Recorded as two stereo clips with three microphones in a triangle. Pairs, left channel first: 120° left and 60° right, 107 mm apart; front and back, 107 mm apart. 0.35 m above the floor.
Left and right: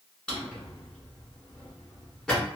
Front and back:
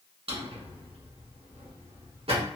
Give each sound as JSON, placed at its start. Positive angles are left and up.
{"t": 0.3, "sound": "a drawer", "azimuth_deg": -155, "distance_m": 1.5}